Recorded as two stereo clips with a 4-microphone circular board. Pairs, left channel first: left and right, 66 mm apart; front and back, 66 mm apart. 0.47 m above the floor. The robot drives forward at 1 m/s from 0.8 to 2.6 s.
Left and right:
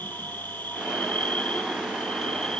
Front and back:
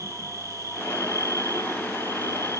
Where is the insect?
150° left; by 2.6 s 165° left.